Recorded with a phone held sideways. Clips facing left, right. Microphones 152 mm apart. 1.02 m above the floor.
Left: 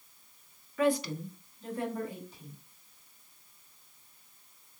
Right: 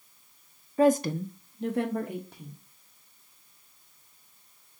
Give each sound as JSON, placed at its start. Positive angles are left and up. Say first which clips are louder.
{"t": 0.8, "sound": "a woman speaking", "louder": "right 6 dB", "side_deg": -35, "distance_m": 0.5}